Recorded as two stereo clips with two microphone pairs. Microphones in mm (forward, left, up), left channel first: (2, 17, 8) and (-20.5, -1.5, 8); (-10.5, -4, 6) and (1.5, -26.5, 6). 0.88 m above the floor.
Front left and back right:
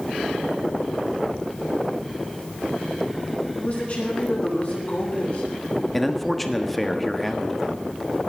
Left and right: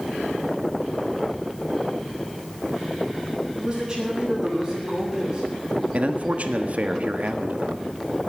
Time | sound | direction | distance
3.6 | a man speaking | straight ahead | 7 m
5.9 | a man speaking | 45° right | 1.3 m